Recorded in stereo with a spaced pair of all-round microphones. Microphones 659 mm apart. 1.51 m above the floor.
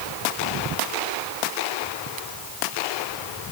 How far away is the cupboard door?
No cupboard door in this recording.